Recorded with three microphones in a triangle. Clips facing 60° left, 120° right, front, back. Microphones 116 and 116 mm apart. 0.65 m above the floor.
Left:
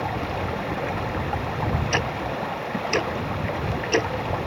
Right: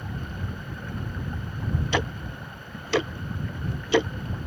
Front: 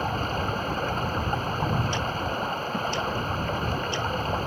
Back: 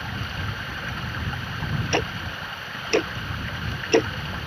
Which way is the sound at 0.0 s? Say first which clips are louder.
Left 10 dB, front 6 dB; 50° left.